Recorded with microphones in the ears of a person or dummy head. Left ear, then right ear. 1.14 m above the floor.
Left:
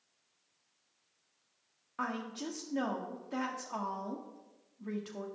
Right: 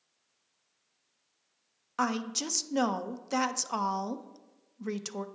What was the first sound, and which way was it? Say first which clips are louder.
A woman speaking: right 7 dB; 90° right.